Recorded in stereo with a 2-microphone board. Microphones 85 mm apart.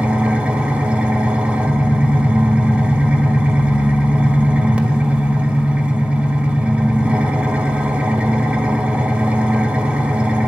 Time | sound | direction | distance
0.0 | an engine running | 15° right (ahead or behind) | 1.2 m